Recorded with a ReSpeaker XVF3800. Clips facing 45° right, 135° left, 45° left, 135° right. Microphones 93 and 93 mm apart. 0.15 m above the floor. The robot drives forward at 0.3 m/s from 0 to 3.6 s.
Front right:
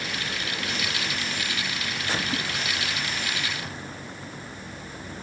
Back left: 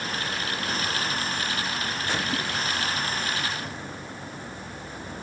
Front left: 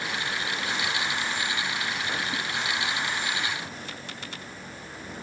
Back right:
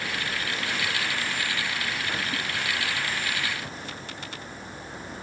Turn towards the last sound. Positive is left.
No sound to turn to.